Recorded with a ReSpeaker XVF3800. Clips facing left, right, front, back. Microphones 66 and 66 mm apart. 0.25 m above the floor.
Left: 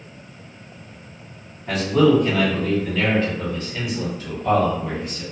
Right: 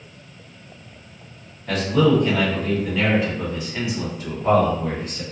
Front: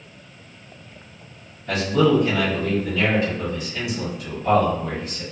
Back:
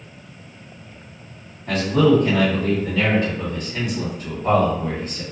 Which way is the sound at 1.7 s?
165° left.